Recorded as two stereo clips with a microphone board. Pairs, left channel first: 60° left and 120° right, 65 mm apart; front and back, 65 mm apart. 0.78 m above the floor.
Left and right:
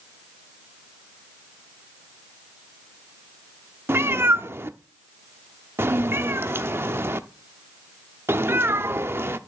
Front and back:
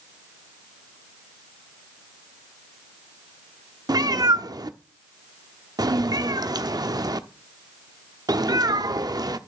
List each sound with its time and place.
3.9 s a cat meowing: 170° right, 0.7 m